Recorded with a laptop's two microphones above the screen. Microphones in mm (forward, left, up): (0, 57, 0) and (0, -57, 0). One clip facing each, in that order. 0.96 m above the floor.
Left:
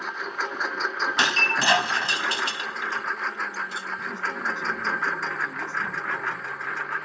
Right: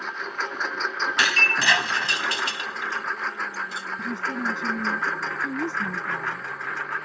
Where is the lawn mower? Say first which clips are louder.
Even; 5° left (ahead or behind); by 7.1 s centre (ahead or behind).